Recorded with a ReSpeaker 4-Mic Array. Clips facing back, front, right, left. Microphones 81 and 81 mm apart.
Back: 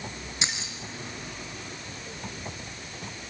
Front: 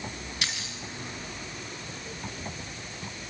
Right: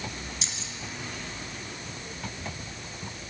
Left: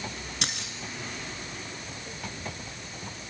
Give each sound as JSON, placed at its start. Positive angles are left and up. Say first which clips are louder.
{"t": 0.4, "sound": "keys jangling", "louder": "back 3 dB, left 4 dB", "azimuth_deg": 115, "distance_m": 2.5}